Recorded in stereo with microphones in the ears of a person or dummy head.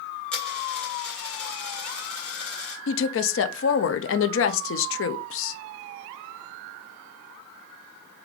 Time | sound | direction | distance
0.3 | a dropped coin | 5° left (ahead or behind) | 2.5 m
2.9 | a woman speaking | 75° left (ahead or behind) | 0.6 m